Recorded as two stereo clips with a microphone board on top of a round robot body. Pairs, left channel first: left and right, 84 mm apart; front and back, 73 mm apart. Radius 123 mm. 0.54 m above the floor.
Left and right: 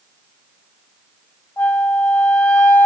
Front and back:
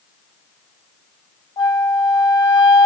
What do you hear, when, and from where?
1.6 s a flute: 20° left, 0.8 m